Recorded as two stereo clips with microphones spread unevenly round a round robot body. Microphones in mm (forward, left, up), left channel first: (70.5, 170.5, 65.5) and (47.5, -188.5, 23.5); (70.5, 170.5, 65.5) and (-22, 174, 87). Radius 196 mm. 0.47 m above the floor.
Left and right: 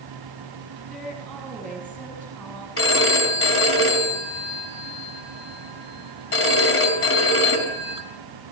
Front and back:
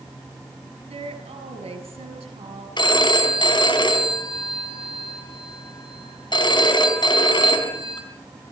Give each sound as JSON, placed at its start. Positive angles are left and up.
{"t": 0.9, "sound": "a woman speaking", "azimuth_deg": 175, "distance_m": 5.5}
{"t": 2.8, "sound": "a phone ringing", "azimuth_deg": 30, "distance_m": 4.0}